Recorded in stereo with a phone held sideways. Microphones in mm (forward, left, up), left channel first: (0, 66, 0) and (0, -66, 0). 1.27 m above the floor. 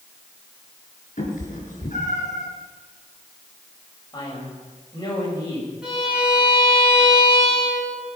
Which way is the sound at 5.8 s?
5° right (ahead or behind).